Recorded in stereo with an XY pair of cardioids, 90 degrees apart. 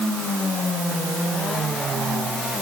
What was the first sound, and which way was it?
Only background noise.